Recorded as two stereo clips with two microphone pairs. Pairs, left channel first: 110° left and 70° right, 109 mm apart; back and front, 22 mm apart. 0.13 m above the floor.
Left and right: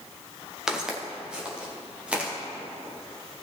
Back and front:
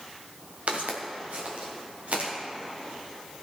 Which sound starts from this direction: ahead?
Footsteps, at 0.7 s.